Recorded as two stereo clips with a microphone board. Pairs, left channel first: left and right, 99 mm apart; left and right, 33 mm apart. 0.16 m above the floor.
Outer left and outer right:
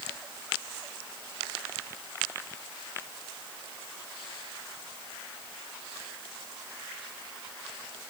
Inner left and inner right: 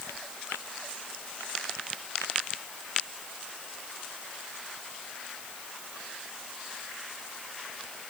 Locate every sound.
Only background noise.